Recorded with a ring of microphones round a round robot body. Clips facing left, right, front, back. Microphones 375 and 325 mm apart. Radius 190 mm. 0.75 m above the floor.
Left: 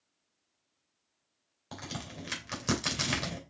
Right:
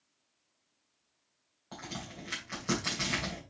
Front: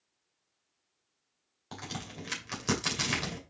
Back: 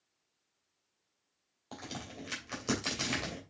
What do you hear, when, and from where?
1.7 s a crack: 60° left, 2.5 m